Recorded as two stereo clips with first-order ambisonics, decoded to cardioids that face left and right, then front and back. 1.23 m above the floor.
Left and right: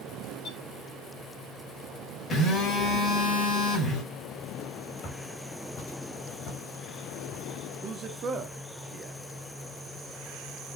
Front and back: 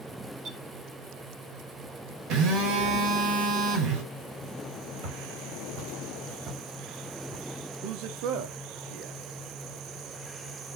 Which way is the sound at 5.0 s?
145° left.